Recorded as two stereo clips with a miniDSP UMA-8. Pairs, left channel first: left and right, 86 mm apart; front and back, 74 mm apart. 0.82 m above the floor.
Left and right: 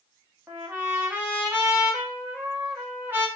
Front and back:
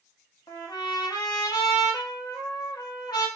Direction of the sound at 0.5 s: 25° right.